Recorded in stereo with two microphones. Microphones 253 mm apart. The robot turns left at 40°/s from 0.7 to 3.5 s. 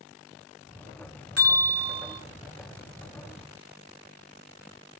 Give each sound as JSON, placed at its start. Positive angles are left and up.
{"t": 1.4, "sound": "a bell", "azimuth_deg": 95, "distance_m": 3.0}